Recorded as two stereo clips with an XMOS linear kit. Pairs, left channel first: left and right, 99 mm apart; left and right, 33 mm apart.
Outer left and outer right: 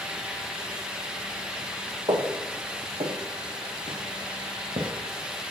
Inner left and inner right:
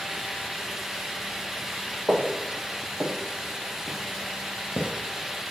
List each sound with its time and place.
2.1 s footsteps: 50° right (ahead or behind), 1.1 m; by 4.9 s 55° right (ahead or behind), 2 m